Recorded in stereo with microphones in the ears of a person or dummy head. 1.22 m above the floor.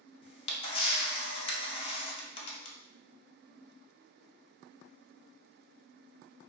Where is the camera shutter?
35° left (ahead or behind), 0.7 m.